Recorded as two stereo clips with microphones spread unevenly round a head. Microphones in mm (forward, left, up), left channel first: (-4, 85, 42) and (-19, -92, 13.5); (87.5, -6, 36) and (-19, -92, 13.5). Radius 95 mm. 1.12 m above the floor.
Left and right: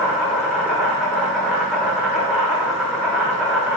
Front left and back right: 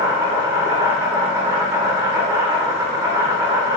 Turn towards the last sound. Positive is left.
turn(degrees=-165)